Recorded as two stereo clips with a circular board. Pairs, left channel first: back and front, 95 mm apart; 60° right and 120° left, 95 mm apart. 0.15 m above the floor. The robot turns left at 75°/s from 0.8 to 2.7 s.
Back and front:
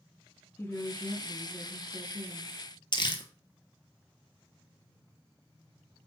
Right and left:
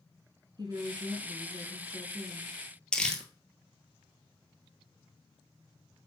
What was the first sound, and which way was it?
A woman speaking, 130° left.